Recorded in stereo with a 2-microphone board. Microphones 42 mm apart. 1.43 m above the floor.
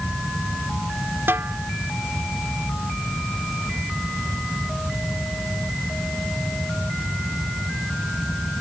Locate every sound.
1.3 s a snare drum: 70° right (ahead or behind)